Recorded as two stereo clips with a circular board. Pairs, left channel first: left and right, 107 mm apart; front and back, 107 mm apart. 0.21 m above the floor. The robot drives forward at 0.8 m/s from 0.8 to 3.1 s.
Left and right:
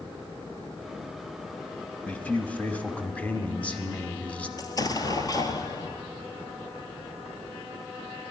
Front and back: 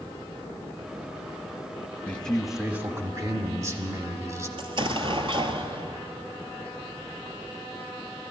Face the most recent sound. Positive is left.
turn(degrees=145)